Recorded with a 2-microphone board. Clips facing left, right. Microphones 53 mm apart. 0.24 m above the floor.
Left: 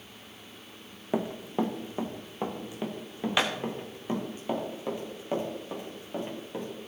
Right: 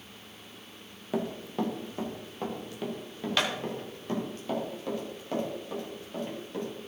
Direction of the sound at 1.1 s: 20° left (ahead or behind).